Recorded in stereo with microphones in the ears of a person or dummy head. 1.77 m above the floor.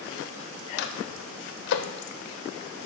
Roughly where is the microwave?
Left.